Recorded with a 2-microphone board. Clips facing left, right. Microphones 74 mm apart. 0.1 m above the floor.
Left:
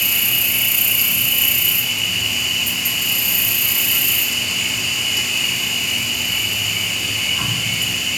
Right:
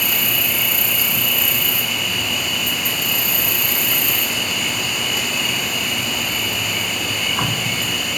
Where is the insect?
45° right (ahead or behind), 1.2 m.